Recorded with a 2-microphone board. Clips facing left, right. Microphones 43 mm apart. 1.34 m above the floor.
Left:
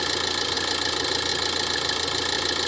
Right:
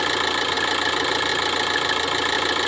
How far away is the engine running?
About 1.1 m.